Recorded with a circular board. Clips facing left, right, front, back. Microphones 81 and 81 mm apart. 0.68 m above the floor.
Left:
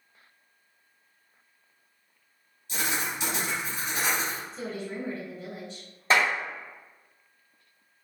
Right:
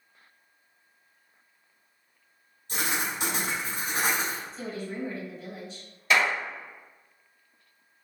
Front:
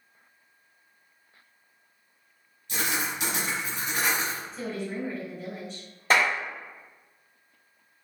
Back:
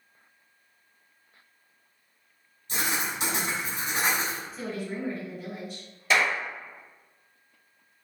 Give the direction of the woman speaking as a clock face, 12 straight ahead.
9 o'clock.